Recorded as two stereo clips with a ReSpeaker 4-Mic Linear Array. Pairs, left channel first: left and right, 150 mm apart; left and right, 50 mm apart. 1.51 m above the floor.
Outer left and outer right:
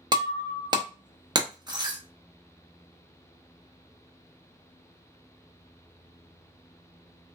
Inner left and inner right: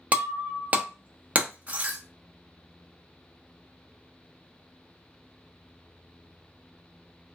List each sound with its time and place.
0.1 s breaking glass: 30° right (ahead or behind), 0.8 m